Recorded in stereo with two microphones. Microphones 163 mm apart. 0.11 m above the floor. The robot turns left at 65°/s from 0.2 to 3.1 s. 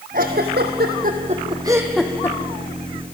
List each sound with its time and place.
0.1 s a giggle: 60° right (ahead or behind), 1.5 m; by 2.4 s 25° left (ahead or behind), 1.5 m